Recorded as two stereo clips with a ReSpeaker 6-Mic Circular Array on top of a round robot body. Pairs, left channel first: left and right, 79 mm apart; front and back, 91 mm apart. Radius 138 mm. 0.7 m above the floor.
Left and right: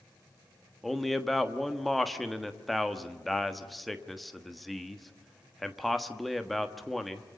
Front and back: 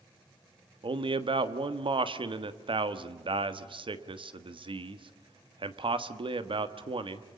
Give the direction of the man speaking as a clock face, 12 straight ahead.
6 o'clock.